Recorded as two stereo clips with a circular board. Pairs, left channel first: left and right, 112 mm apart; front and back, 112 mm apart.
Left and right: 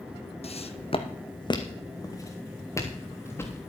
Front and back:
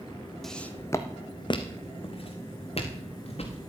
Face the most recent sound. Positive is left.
turn(degrees=20)